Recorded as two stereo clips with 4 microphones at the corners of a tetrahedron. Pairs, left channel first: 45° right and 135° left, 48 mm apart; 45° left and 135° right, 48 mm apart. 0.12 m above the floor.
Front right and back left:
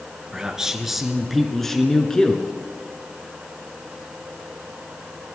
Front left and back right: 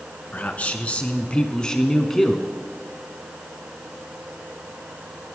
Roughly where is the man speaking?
Left.